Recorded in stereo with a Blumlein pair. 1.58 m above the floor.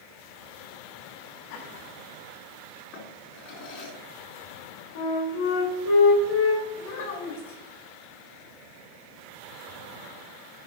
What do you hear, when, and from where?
1.5 s laughter: 50° left, 2.5 m
2.9 s a drawer: 45° left, 2.5 m
5.0 s a flute: 55° left, 2.5 m
6.8 s a child speaking: 55° left, 3 m